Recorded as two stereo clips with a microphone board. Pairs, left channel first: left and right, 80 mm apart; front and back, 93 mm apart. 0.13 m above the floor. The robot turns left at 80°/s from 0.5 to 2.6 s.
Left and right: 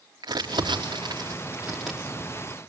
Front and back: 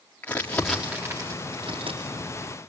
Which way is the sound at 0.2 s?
70° right.